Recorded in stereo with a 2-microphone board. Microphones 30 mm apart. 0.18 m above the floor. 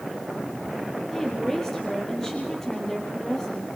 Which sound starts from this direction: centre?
A woman speaking, at 1.1 s.